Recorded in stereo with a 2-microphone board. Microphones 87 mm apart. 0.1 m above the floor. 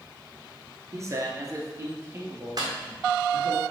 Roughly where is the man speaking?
Right.